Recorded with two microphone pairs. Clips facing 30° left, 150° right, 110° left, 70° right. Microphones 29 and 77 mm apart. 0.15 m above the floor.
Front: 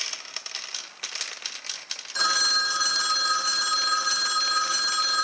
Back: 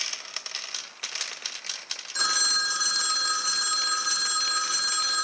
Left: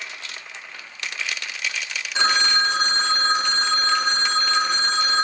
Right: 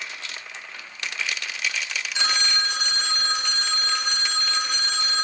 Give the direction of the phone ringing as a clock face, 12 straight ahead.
9 o'clock.